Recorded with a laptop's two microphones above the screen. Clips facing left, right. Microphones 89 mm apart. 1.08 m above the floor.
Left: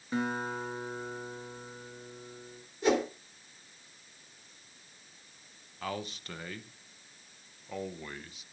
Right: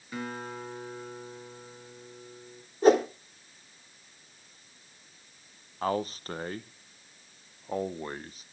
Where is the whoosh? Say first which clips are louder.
Right 7 dB; 35° right (ahead or behind), 2.5 m.